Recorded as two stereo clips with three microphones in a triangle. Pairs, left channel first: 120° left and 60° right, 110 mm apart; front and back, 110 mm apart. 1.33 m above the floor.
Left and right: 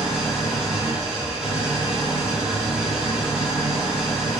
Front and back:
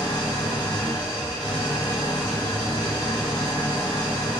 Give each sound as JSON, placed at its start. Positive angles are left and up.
{"t": 0.0, "sound": "an engine running", "azimuth_deg": 15, "distance_m": 1.3}